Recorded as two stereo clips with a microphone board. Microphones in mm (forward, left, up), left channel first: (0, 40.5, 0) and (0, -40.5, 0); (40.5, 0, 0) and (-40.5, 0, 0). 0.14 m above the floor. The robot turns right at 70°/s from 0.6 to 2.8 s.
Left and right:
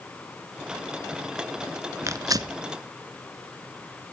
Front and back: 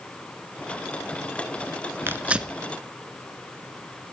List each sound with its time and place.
2.1 s tearing paper: 125° right, 0.6 m; by 2.6 s 90° right, 0.6 m